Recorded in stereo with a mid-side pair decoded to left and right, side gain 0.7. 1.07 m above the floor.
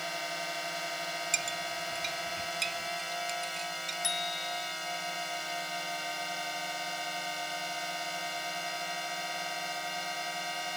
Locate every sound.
0.0 s a drone: straight ahead
1.3 s a clink: 25° right
4.0 s a bicycle bell: 25° left